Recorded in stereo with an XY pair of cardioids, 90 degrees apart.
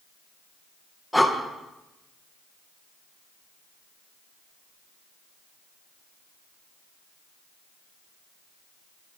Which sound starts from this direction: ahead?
Breathing, at 1.1 s.